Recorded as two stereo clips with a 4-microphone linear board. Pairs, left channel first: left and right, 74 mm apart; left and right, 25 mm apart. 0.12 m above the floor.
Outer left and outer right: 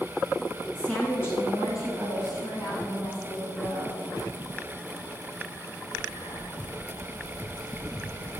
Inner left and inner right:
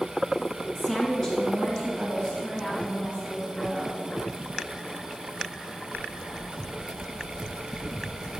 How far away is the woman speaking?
About 1.3 m.